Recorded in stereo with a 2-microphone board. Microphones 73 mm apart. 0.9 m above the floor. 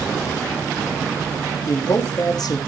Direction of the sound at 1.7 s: 60° left (ahead or behind).